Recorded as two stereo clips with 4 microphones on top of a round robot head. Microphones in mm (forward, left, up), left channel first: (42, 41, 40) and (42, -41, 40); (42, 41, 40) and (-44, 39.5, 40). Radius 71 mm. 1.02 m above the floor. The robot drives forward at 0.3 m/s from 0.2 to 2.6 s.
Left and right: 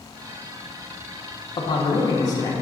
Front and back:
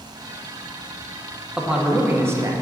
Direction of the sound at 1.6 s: 95° left.